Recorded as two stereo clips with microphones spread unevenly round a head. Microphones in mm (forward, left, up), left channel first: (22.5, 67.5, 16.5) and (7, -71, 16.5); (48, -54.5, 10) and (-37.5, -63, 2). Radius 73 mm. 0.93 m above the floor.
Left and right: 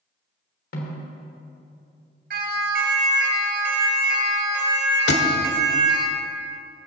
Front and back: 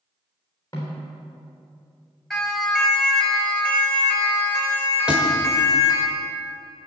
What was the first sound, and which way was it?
A snare drum, 75° left.